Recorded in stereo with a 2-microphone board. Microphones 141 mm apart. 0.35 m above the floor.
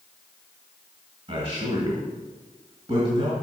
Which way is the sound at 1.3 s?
40° right (ahead or behind).